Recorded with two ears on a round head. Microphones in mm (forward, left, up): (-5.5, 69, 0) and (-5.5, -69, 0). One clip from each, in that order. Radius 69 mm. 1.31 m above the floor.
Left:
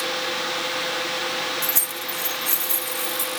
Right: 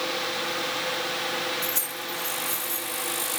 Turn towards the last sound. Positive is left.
turn(degrees=45)  # may be behind; listen again after turning